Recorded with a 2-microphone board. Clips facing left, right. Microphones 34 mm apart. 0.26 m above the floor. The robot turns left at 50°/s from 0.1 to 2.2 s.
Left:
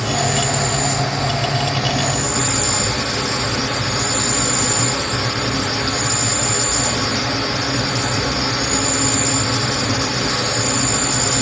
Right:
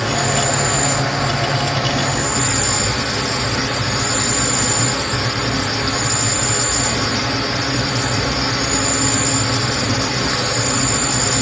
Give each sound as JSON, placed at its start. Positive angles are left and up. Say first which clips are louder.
{"t": 0.0, "sound": "an insect", "louder": "right 1 dB", "azimuth_deg": -45, "distance_m": 1.4}